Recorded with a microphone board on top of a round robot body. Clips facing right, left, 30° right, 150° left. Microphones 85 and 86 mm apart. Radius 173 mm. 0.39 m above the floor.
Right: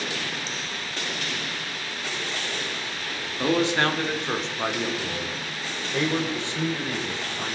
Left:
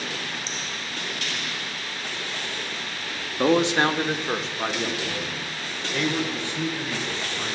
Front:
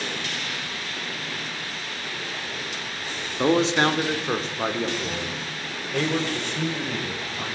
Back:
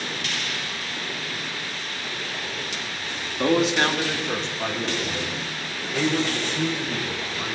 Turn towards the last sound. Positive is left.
turn(degrees=-30)